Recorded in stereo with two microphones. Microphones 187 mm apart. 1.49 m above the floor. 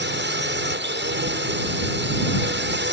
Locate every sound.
0.0 s a drone: 75° right (ahead or behind)